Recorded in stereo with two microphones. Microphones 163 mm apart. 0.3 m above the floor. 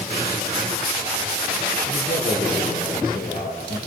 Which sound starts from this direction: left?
A man speaking, at 1.9 s.